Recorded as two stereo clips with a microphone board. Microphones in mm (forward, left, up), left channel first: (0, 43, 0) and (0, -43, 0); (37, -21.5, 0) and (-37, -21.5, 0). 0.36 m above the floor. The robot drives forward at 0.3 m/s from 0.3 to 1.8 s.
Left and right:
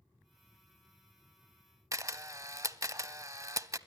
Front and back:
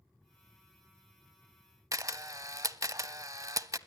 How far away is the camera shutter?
About 0.6 m.